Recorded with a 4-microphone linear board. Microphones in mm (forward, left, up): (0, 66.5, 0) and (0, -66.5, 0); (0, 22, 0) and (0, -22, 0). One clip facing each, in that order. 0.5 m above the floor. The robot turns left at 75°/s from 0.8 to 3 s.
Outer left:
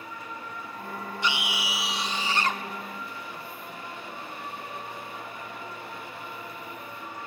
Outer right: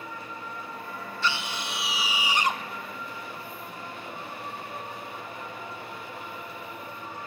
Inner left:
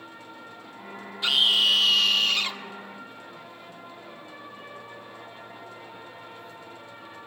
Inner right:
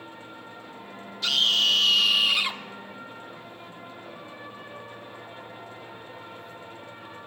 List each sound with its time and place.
1.2 s a scream: 15° left (ahead or behind), 0.9 m; by 2.6 s 20° right (ahead or behind), 0.9 m